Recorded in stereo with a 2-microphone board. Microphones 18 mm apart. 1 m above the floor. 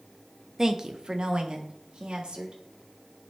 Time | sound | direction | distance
0.6 | a woman speaking | 20° right (ahead or behind) | 0.6 m